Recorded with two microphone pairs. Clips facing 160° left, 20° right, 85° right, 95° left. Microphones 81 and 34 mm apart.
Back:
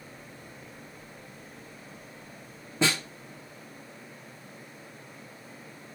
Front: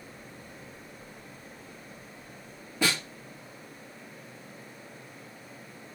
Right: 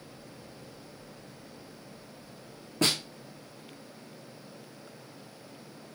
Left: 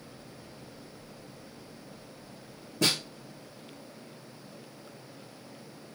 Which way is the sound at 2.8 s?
130° right.